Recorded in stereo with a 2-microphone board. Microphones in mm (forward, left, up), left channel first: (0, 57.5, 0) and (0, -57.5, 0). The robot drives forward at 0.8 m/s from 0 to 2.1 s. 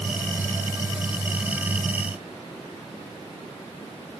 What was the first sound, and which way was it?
Only background noise.